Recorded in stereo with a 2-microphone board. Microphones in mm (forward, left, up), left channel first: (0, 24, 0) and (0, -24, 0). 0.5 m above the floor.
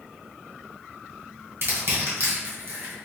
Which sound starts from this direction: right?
Crushing, at 1.6 s.